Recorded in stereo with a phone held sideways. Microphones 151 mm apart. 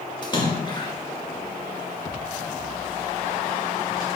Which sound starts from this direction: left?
A splash, at 0.2 s.